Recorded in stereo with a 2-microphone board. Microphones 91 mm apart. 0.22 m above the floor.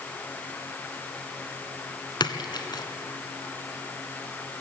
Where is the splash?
50° left (ahead or behind), 1.3 m.